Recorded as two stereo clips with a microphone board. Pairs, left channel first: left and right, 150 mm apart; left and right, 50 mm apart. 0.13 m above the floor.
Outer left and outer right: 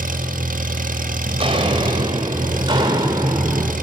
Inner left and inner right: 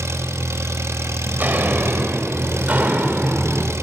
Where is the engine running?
65° right (ahead or behind), 2.5 m.